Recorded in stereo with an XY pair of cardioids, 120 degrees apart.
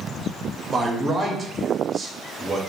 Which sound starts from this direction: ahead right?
A man speaking, at 0.7 s.